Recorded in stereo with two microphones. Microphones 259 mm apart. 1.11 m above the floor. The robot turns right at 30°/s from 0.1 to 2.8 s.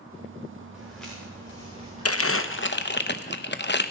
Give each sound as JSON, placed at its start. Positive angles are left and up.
{"t": 0.7, "sound": "footsteps", "side_deg": -5, "distance_m": 7.0}
{"t": 2.0, "sound": "crumpling", "side_deg": 65, "distance_m": 0.8}